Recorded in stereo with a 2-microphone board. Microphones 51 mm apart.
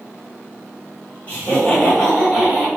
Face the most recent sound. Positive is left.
turn(degrees=0)  # may be behind; listen again after turning